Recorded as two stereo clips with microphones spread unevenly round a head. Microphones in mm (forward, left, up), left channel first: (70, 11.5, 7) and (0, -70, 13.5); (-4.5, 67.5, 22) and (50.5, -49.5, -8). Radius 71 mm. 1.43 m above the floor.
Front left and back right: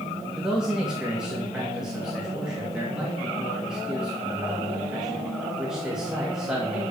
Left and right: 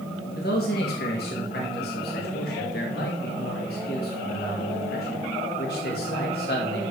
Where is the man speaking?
145° left, 2 m.